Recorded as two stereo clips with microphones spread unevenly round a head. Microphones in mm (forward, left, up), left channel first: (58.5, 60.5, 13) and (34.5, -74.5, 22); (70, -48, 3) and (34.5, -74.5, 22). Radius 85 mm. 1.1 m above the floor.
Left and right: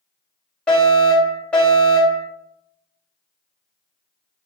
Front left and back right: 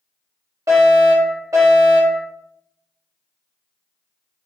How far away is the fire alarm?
About 3.5 m.